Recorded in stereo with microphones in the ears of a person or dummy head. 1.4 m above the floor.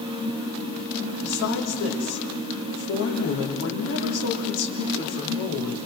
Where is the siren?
I don't hear a siren.